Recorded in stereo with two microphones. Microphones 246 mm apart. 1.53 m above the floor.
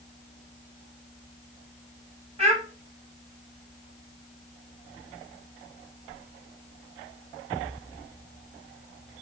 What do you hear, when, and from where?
2.4 s a child speaking: 25° right (ahead or behind), 1.9 m